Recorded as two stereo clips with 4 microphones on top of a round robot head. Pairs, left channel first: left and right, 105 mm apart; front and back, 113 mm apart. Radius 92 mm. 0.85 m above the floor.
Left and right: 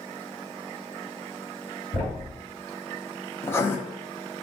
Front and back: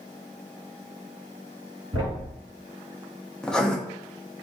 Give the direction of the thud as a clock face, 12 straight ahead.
8 o'clock.